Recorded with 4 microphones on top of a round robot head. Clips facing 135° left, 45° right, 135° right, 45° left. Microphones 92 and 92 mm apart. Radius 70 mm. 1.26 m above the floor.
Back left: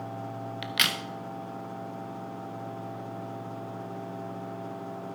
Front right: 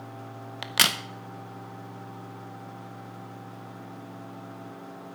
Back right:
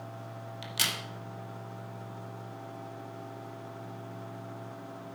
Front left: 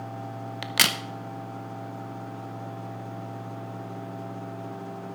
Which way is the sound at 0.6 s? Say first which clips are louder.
Front right 4 dB, front left 9 dB; 10° left.